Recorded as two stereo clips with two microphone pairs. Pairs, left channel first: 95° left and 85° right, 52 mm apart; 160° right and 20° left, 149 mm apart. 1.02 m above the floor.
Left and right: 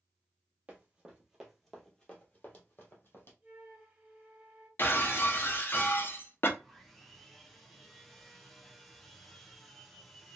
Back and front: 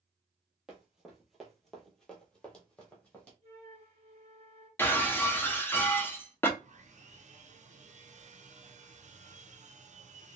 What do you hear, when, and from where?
0.7 s running footsteps: 60° right, 1.1 m; by 3.3 s 120° left, 1.5 m
3.4 s a flute: 20° right, 1.1 m
4.8 s breaking glass: 120° left, 0.5 m
6.6 s sawing: 10° left, 0.5 m